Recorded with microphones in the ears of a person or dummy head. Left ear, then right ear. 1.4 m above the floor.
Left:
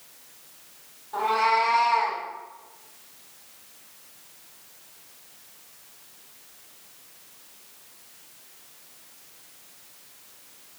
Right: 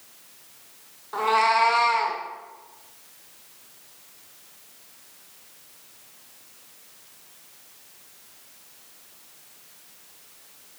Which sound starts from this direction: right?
A cat meowing, at 1.1 s.